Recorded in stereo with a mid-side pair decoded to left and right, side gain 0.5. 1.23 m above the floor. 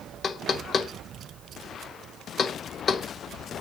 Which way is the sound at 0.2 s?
50° left.